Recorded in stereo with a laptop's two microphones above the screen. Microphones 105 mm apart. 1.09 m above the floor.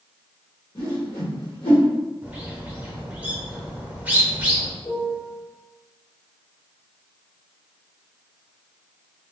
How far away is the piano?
About 0.8 m.